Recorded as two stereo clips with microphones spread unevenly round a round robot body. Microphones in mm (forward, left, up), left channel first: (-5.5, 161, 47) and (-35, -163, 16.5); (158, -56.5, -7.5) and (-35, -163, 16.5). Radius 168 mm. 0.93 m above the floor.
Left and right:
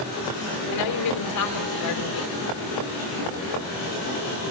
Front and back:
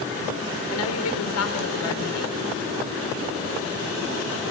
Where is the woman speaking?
40° left, 3.5 m.